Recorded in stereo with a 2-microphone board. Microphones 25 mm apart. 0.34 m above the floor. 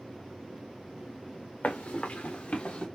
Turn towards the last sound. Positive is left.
turn(degrees=40)  # may be behind; listen again after turning